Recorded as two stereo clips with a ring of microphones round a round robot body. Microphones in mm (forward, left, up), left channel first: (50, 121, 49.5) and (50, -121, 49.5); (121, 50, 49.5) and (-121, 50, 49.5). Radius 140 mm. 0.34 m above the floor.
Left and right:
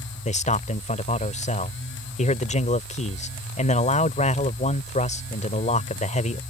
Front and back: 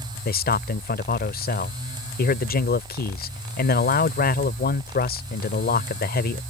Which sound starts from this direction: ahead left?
A man speaking, at 0.2 s.